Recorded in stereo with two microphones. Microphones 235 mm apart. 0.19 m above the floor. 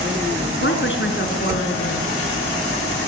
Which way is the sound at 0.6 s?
55° left (ahead or behind).